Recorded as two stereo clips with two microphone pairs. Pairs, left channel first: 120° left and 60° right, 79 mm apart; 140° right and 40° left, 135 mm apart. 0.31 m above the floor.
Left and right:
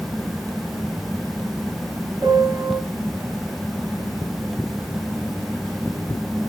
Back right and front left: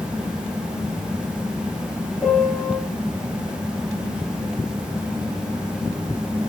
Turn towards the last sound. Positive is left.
turn(degrees=-50)